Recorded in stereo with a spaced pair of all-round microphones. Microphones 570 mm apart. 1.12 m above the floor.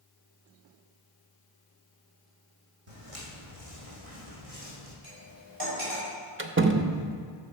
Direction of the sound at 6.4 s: 25° right (ahead or behind).